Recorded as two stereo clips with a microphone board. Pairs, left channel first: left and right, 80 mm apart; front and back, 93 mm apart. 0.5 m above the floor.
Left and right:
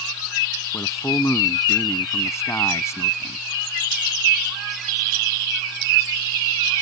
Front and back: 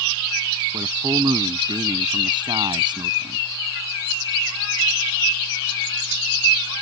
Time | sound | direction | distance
0.7 | a man speaking | 145° left | ?